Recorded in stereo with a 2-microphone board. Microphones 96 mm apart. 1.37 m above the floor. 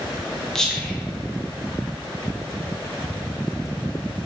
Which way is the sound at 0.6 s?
5° left (ahead or behind).